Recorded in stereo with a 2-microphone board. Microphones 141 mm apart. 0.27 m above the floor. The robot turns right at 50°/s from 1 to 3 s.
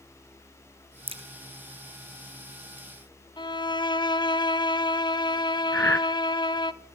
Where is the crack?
40° right (ahead or behind), 2.5 m; by 1.2 s 45° right (ahead or behind), 2.5 m.